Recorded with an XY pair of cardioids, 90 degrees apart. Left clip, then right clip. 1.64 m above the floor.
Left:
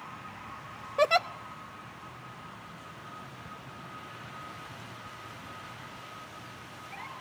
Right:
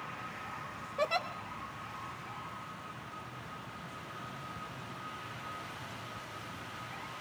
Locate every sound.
1.0 s a giggle: 60° left, 0.7 m